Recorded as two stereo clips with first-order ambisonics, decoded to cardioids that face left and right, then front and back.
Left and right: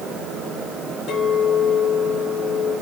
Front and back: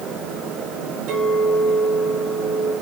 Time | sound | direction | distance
1.1 | a clink | 145° left | 7 m